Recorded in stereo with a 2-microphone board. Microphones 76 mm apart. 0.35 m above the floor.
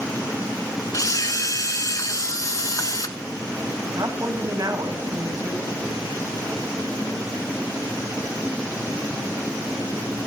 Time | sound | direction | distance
0.9 | a camera shutter | 50° left (ahead or behind) | 1.0 m
3.9 | a woman speaking | 50° right (ahead or behind) | 1.9 m